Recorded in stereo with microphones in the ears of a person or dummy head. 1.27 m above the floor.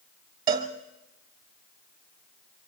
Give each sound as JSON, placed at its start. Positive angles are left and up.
{"t": 0.5, "sound": "a cowbell", "side_deg": -25, "distance_m": 1.3}